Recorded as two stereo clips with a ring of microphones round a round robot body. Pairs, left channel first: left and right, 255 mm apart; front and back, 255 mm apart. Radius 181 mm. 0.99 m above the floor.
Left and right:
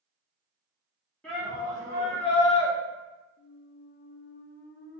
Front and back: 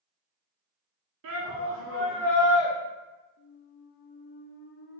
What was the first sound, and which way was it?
A shout, 175° left.